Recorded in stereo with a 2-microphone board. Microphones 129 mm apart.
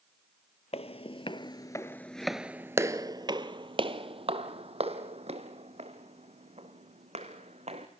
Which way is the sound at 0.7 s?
55° left (ahead or behind).